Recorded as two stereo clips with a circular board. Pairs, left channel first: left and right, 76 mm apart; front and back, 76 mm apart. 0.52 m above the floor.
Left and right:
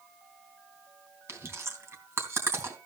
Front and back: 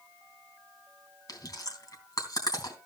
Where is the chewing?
35° right, 3.5 m.